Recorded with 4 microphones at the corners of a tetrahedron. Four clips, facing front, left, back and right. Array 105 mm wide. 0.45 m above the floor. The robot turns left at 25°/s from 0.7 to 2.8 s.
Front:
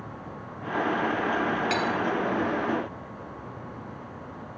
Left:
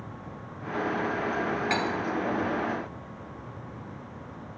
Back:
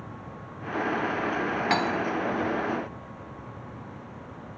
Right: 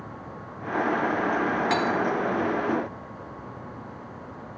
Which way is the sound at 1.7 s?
150° right.